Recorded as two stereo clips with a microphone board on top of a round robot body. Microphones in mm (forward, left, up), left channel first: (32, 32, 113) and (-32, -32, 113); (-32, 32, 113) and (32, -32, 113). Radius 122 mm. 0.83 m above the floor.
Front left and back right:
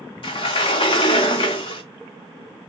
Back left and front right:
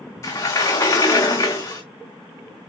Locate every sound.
0.2 s a sliding door: 75° left, 0.5 m